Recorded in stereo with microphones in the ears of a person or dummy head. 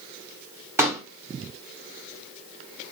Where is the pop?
15° right (ahead or behind), 1.0 m.